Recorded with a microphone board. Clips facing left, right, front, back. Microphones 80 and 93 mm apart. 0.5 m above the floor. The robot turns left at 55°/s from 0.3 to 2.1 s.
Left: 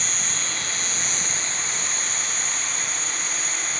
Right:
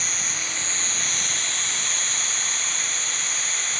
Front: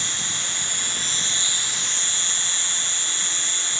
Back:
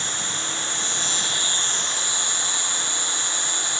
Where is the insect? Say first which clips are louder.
Left 1 dB, back 3 dB; 5° right, 1.6 m; by 3.8 s 105° right, 1.6 m.